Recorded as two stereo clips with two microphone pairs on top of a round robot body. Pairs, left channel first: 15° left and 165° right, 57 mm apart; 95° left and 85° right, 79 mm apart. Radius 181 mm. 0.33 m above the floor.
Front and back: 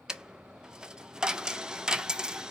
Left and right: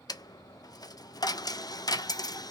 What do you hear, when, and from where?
0.1 s a dropped coin: 125° left, 0.5 m